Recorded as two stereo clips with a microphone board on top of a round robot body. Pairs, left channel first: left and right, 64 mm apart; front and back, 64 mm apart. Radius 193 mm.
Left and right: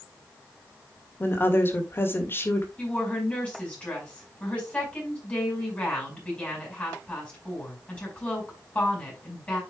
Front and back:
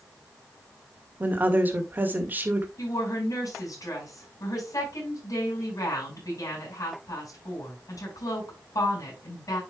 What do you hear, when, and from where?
1.2 s a woman speaking: 130° left, 2.5 m
2.8 s a woman speaking: 20° left, 6 m